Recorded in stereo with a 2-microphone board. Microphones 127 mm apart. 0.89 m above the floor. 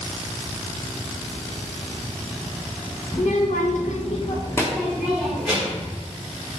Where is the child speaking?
65° left (ahead or behind), 1.4 m; by 5.9 s 15° right (ahead or behind), 2 m.